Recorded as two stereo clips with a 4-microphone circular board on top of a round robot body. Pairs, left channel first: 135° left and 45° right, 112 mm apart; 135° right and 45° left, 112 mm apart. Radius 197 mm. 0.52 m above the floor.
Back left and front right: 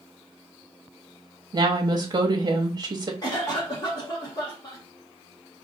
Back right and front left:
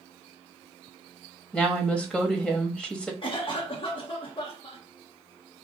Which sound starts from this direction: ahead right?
A woman speaking, at 1.5 s.